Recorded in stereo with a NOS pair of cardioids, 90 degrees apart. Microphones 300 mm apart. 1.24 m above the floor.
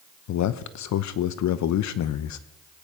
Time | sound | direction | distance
0.3 | a man speaking | 65° left | 0.9 m